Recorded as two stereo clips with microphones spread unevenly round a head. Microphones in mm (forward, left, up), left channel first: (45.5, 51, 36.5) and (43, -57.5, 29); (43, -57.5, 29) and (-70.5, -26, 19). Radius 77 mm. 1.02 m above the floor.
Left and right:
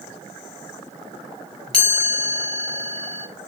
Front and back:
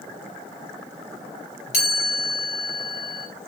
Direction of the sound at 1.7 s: 10° left.